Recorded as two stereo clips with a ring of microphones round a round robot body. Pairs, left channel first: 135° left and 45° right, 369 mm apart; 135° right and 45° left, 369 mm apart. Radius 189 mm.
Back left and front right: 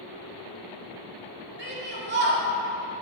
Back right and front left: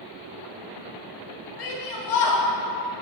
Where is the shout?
105° right, 1.8 m.